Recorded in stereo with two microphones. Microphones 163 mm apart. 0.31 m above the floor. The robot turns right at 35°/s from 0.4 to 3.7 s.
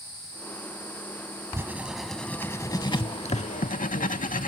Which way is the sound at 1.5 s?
15° right (ahead or behind).